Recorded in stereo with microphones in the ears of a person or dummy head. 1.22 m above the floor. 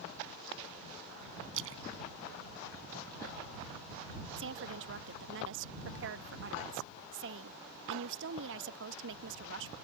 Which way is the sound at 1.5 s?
70° right (ahead or behind).